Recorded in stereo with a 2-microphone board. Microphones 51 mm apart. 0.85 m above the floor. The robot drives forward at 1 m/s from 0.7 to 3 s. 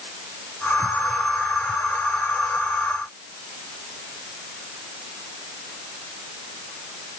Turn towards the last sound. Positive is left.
No sound to turn to.